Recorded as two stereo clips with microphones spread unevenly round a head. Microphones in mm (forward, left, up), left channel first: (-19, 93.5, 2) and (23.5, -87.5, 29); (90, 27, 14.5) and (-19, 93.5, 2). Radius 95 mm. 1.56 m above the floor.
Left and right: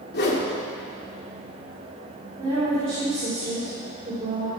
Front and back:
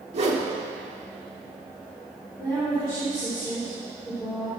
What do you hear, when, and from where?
0.1 s a whoosh: 135° left, 1.7 m
2.4 s a woman speaking: 135° right, 3.5 m